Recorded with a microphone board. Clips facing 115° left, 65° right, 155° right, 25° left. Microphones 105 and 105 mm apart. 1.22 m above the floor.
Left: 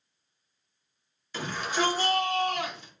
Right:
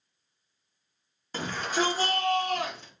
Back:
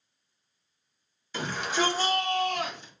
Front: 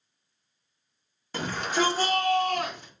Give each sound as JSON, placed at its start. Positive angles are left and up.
{"t": 1.3, "sound": "a shout", "azimuth_deg": -20, "distance_m": 2.5}